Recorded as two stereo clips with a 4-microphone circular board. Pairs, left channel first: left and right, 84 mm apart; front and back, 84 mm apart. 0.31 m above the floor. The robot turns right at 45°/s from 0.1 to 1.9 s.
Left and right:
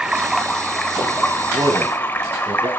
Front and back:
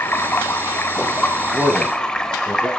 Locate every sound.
0.0 s running water: 15° right, 1.2 m; by 2.8 s 65° left, 1.2 m
1.5 s a man speaking: 95° right, 4 m; by 2.7 s 80° right, 4 m